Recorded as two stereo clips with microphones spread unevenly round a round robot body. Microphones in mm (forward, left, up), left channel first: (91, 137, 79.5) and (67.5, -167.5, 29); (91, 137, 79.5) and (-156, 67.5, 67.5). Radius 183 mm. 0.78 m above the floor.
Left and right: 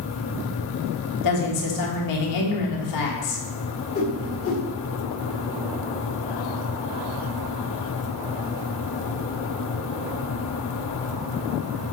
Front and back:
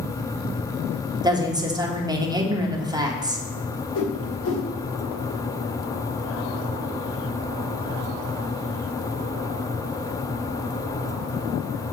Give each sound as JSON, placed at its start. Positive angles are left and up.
{"t": 1.2, "sound": "a woman speaking", "azimuth_deg": 120, "distance_m": 2.0}
{"t": 4.0, "sound": "a whoosh", "azimuth_deg": 35, "distance_m": 3.5}